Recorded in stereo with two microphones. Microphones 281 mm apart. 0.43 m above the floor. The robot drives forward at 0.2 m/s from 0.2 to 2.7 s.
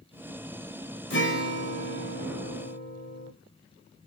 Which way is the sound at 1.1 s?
40° left (ahead or behind).